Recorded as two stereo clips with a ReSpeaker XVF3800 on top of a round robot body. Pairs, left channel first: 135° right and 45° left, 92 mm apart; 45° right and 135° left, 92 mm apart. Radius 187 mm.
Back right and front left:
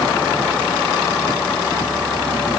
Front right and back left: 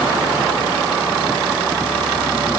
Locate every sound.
Only background noise.